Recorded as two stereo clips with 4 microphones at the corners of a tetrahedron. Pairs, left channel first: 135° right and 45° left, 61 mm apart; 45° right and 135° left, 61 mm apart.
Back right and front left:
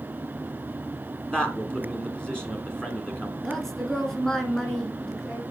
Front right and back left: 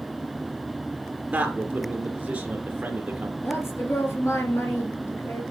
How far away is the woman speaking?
About 2 m.